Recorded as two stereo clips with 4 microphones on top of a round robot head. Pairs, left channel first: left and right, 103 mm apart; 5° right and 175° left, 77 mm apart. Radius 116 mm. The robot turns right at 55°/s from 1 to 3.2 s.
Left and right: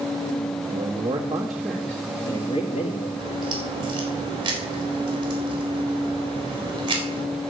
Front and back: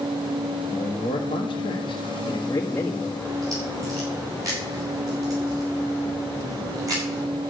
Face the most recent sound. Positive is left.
turn(degrees=-130)